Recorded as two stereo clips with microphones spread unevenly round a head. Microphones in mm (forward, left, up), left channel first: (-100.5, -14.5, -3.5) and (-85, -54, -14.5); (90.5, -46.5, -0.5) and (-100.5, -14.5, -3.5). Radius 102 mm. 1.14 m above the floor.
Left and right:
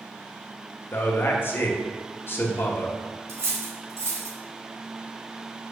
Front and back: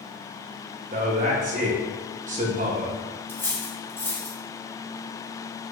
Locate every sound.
0.9 s a man speaking: 140° left, 0.9 m
3.3 s cutlery clinking: 90° right, 1.3 m